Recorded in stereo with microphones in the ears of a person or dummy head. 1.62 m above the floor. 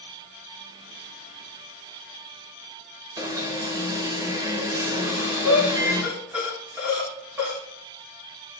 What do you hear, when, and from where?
3.2 s an alarm: 15° right (ahead or behind), 0.9 m
5.0 s breathing: 5° right (ahead or behind), 1.2 m